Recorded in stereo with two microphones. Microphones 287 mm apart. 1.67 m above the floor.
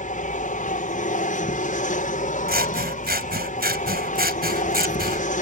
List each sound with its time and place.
0.0 s an aircraft: 25° left (ahead or behind)
2.5 s scissors: 30° right (ahead or behind)